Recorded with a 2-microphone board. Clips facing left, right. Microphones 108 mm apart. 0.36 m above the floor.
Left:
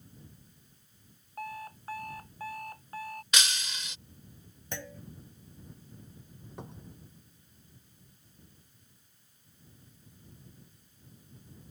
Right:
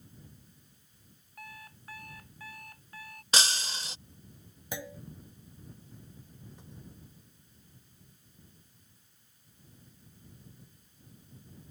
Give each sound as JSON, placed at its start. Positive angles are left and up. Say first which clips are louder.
{"t": 1.4, "sound": "an alarm clock", "louder": "left 10 dB", "side_deg": 40}
{"t": 3.3, "sound": "breaking glass", "louder": "right 4 dB", "side_deg": -35}
{"t": 4.7, "sound": "a clunk", "louder": "right 1 dB", "side_deg": -10}
{"t": 6.6, "sound": "a cupboard door", "louder": "left 5 dB", "side_deg": 60}